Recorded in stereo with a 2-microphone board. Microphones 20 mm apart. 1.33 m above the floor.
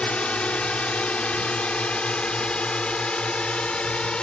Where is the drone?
80° left; by 4.2 s 55° left (ahead or behind).